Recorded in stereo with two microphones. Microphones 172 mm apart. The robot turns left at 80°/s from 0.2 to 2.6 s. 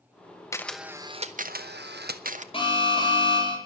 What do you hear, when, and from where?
0.5 s a camera shutter: 20° left, 0.8 m; by 2.4 s 135° right, 0.8 m
2.5 s an alarm: 30° left (ahead or behind), 4 m